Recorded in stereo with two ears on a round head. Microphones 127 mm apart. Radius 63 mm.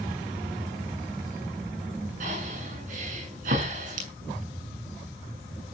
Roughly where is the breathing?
Right.